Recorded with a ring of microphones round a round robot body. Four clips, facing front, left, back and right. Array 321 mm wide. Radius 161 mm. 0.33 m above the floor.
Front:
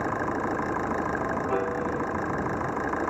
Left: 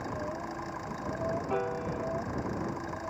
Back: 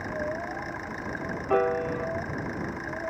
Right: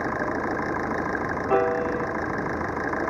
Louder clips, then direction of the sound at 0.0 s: Right 10 dB, front 4 dB; 55° right.